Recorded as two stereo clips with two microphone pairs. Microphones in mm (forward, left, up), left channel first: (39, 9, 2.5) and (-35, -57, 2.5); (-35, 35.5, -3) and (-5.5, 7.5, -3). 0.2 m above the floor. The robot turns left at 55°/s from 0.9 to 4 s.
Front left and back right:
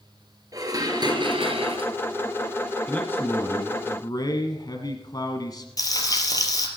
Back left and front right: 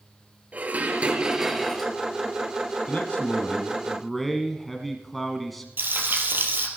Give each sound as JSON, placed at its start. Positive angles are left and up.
{"t": 0.5, "sound": "dishes clattering", "azimuth_deg": -90, "distance_m": 2.0}
{"t": 2.9, "sound": "a man speaking", "azimuth_deg": 115, "distance_m": 1.5}
{"t": 5.8, "sound": "frying", "azimuth_deg": -10, "distance_m": 2.5}